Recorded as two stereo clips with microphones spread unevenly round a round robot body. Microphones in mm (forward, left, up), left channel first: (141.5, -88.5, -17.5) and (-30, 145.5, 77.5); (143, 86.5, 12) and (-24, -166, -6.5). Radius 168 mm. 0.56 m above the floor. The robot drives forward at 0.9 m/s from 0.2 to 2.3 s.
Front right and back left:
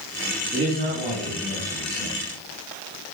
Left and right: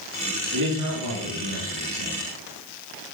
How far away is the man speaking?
About 7.5 m.